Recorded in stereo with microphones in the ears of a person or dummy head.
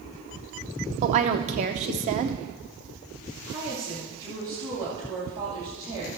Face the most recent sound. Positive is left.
turn(degrees=-20)  # may be behind; listen again after turning